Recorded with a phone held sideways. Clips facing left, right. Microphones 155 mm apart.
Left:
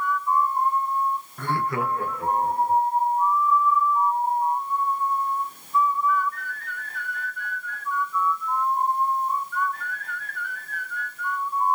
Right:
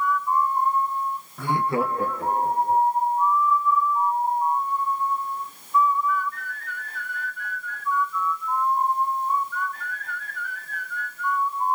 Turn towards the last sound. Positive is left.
turn(degrees=-35)  # may be behind; listen again after turning